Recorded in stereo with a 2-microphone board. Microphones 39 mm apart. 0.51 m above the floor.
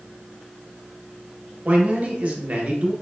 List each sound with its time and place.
1.6 s a man speaking: 35° right (ahead or behind), 0.8 m